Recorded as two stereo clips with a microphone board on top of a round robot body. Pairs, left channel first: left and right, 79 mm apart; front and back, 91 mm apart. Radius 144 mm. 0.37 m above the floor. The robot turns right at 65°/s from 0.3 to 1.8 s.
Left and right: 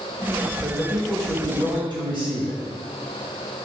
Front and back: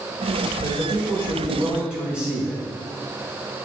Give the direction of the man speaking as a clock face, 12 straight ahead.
6 o'clock.